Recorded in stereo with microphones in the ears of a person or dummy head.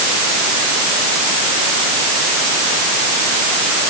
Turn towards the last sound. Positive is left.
No sound to turn to.